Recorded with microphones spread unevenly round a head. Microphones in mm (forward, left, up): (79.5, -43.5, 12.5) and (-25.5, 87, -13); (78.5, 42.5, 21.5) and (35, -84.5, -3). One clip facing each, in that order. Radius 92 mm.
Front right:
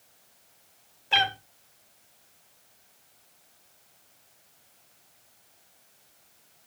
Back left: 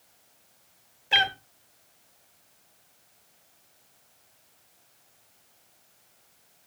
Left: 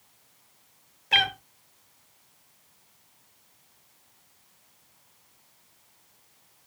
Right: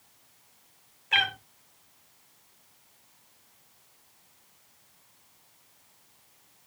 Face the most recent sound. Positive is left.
turn(degrees=55)